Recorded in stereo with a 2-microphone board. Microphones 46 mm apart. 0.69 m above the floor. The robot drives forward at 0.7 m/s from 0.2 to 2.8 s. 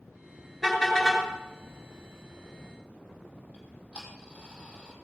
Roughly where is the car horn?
Centre.